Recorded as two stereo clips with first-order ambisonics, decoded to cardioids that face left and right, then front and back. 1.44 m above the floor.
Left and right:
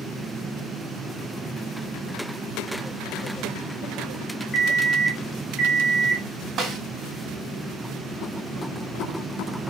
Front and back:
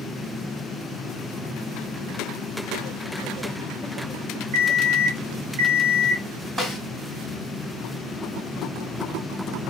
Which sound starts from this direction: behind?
An alarm clock, at 4.5 s.